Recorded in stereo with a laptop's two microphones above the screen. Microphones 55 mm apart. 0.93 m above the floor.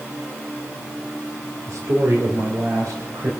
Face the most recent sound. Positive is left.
turn(degrees=-80)